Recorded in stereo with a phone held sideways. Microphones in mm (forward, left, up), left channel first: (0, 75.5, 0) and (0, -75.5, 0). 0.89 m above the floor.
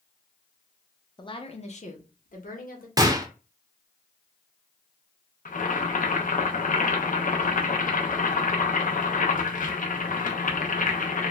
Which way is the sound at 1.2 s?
30° left (ahead or behind).